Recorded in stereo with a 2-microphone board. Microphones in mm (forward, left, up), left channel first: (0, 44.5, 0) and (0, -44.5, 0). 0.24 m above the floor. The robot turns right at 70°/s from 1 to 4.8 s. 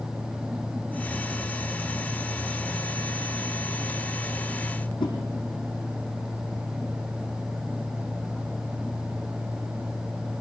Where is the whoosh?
75° left (ahead or behind), 7.5 m.